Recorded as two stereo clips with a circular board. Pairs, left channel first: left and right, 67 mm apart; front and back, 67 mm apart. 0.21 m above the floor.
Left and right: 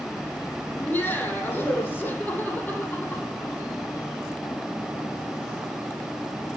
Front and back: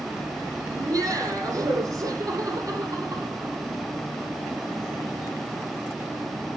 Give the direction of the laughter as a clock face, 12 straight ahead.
7 o'clock.